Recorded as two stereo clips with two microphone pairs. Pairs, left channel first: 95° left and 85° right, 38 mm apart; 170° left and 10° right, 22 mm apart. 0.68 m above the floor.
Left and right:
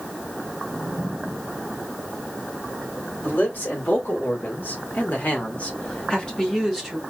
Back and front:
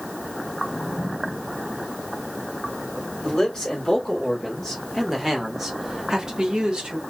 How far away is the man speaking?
About 2 m.